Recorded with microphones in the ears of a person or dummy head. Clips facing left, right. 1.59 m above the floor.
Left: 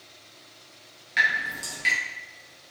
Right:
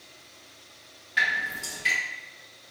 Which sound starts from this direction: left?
Dripping, at 1.2 s.